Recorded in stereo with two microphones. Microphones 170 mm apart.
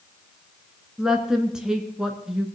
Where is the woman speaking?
5° right (ahead or behind), 1.5 m.